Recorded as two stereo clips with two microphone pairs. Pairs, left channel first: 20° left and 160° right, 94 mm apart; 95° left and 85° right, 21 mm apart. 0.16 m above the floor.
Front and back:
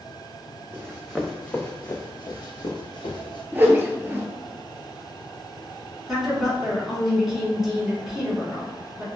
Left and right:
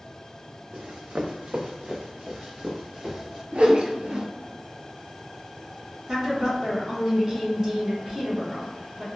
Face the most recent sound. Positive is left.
turn(degrees=-75)